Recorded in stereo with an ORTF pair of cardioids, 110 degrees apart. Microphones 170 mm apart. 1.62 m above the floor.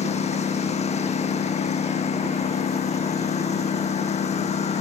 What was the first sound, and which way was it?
A lawn mower, 40° left.